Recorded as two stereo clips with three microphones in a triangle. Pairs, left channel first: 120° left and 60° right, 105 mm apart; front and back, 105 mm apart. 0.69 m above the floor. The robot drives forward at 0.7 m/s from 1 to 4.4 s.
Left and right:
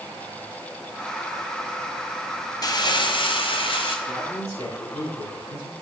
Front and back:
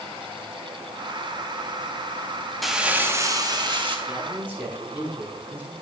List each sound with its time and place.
2.6 s crumpling: 90° left, 0.8 m; by 4.0 s 150° left, 1.2 m
4.1 s a man speaking: 105° left, 6 m